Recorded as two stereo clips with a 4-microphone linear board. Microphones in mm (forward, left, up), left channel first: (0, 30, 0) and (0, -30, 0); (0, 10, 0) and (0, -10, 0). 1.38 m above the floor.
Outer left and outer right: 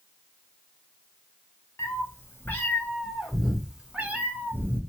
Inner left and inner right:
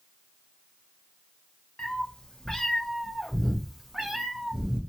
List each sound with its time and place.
1.8 s a cat meowing: 45° left (ahead or behind), 1.5 m; by 4.8 s 40° right (ahead or behind), 1.3 m